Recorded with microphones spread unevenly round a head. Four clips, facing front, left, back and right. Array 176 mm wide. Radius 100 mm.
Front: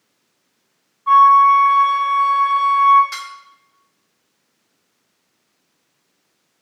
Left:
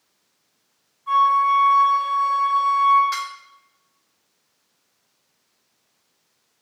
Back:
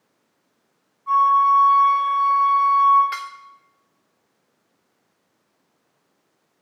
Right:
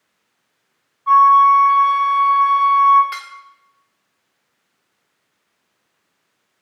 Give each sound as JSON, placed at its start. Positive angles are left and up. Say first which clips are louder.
{"t": 1.1, "sound": "a flute", "louder": "right 7 dB, front 6 dB", "azimuth_deg": -25, "distance_m": 4.0}
{"t": 3.1, "sound": "dishes clattering", "louder": "left 4 dB, back 2 dB", "azimuth_deg": -165, "distance_m": 0.7}